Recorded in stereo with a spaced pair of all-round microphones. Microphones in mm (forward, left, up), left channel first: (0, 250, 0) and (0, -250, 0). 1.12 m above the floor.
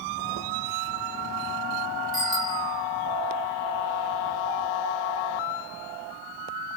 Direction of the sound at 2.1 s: 15° right (ahead or behind).